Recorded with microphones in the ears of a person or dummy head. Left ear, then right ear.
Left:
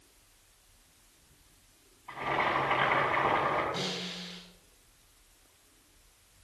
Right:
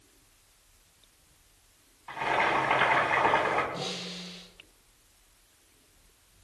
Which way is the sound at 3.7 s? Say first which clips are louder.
Even; 40° left (ahead or behind).